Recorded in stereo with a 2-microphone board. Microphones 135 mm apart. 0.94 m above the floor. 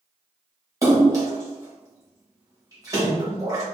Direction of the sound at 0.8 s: 25° right (ahead or behind).